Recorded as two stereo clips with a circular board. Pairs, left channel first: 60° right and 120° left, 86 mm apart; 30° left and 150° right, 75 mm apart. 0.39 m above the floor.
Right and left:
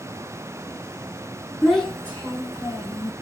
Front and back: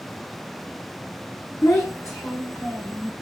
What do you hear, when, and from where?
1.6 s a child speaking: 25° left, 0.7 m; by 3.1 s 10° right, 1.3 m